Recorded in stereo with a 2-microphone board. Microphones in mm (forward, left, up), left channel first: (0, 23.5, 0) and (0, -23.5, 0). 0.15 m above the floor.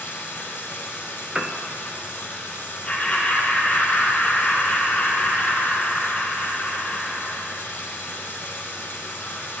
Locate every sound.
0.0 s running water: 40° left (ahead or behind), 3 m
1.4 s a piano: 15° right (ahead or behind), 0.6 m
2.9 s laughter: 25° left (ahead or behind), 4.5 m